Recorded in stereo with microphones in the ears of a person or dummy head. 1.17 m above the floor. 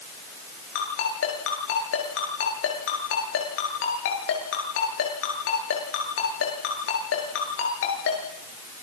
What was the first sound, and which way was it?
A ringtone, 85° left.